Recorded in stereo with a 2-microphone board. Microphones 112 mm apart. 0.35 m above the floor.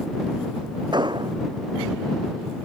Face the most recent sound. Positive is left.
turn(degrees=-45)  # may be behind; listen again after turning